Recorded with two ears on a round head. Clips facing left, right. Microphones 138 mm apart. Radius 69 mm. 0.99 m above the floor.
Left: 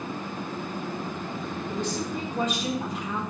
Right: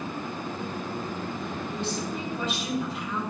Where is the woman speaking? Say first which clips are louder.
Left 3 dB; 40° left (ahead or behind), 1.6 m.